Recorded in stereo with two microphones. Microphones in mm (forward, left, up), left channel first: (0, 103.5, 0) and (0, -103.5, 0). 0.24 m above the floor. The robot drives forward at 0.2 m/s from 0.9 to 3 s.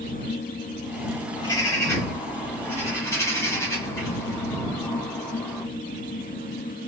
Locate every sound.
1.4 s a bird: 15° left (ahead or behind), 1.2 m